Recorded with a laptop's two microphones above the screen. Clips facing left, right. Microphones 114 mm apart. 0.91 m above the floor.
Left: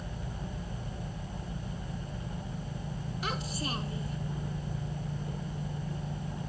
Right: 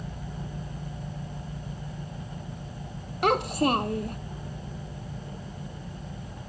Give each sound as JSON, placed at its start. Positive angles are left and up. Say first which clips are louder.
{"t": 3.2, "sound": "a child speaking", "louder": "right 14 dB", "side_deg": -55}